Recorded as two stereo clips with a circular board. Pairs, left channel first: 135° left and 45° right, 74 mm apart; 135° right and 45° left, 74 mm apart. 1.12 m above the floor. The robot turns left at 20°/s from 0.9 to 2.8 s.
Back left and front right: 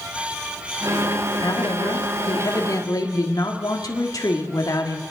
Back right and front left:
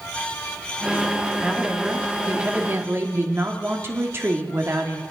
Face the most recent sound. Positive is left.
turn(degrees=100)